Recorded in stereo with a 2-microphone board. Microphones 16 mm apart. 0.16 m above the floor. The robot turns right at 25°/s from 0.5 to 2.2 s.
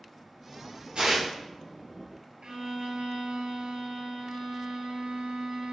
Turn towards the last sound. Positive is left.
turn(degrees=-55)  # may be behind; listen again after turning